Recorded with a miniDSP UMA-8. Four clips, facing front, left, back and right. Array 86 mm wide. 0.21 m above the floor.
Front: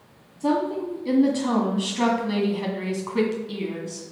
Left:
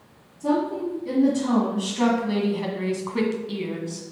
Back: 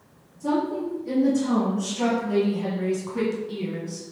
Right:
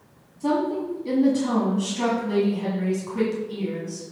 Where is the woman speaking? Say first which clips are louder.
Even, front 1 dB; 30° right, 1.7 m; by 4.0 s 70° left, 1.9 m.